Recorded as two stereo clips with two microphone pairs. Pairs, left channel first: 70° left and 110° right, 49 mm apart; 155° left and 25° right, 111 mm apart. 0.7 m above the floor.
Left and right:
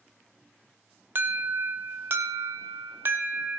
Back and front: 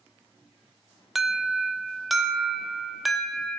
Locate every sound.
1.1 s an alarm: 115° right, 1.1 m